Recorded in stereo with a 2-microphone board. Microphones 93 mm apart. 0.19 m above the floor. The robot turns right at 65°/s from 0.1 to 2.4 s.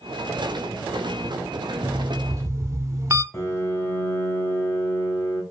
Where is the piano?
30° left (ahead or behind), 1.3 m.